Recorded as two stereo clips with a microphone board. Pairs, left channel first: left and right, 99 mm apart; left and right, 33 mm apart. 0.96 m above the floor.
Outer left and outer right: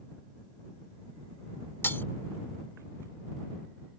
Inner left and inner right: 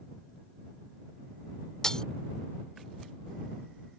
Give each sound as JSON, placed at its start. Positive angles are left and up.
{"t": 1.8, "sound": "breaking glass", "side_deg": 20}